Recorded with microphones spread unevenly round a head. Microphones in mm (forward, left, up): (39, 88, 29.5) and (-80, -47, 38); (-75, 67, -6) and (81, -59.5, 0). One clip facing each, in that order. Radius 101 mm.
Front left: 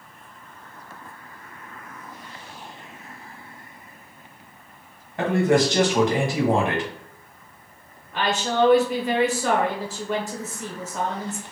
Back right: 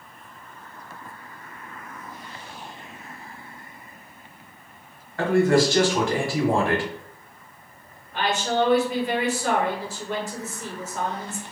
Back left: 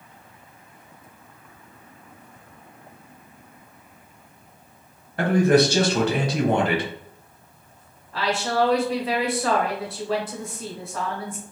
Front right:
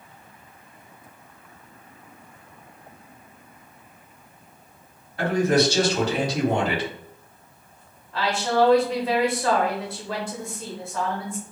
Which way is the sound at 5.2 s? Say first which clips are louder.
Back right 1 dB, back left 3 dB; 120° left.